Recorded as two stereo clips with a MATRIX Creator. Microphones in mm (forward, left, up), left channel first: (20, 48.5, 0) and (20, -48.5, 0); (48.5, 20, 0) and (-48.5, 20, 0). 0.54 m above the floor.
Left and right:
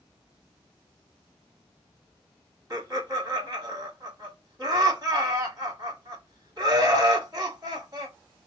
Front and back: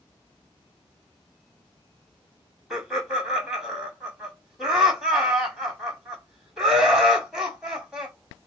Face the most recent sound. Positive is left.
turn(degrees=-105)